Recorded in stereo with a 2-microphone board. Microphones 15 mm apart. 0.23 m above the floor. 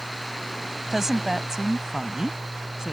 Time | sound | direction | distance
0.9 | a woman speaking | 25° right (ahead or behind) | ?